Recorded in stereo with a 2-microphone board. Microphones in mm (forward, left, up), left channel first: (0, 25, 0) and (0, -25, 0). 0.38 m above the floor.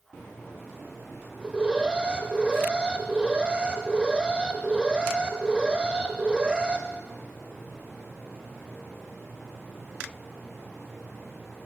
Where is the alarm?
20° right (ahead or behind), 0.7 m.